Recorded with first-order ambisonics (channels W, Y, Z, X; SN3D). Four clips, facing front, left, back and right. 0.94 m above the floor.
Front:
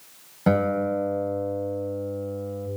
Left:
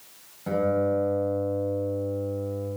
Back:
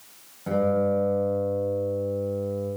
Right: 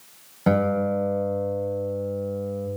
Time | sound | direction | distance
0.5 | a guitar | 45° right | 6 m